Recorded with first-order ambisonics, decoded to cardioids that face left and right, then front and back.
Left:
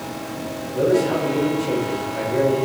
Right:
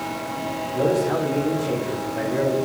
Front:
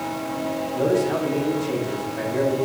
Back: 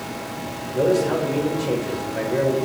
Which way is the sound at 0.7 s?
165° left.